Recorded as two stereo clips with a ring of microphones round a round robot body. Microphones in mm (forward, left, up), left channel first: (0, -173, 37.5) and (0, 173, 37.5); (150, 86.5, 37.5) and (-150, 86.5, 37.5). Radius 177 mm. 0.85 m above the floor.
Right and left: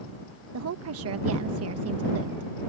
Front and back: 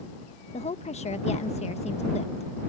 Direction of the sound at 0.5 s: 60° left.